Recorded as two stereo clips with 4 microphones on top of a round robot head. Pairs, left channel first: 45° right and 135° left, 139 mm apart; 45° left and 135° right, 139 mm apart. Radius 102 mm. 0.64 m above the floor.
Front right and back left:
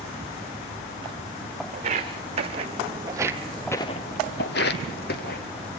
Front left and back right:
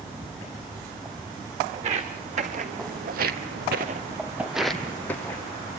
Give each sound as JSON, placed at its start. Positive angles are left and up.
{"t": 1.7, "sound": "footsteps", "azimuth_deg": 180, "distance_m": 3.0}